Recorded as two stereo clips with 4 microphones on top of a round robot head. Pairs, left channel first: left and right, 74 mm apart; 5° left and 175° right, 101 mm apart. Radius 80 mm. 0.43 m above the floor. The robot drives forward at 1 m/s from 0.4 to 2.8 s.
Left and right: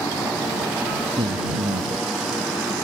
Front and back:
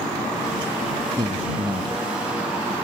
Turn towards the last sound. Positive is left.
turn(degrees=-120)